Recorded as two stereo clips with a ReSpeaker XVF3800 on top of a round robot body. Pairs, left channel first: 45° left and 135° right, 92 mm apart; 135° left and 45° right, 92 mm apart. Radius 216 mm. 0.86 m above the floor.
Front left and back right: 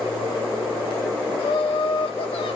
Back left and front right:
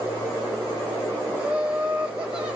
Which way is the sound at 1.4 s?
35° left.